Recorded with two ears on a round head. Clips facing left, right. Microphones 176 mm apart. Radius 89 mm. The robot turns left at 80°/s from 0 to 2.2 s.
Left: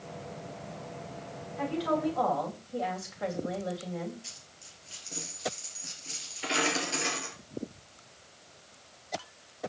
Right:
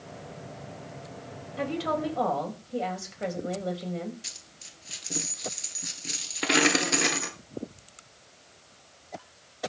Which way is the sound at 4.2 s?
70° right (ahead or behind).